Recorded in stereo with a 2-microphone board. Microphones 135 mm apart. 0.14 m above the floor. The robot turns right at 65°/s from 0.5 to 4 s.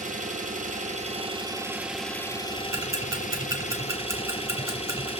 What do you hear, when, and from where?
0.0 s an engine running: 95° right, 1.1 m; by 5.2 s 130° left, 1.1 m
2.7 s ticking: 20° right (ahead or behind), 1.6 m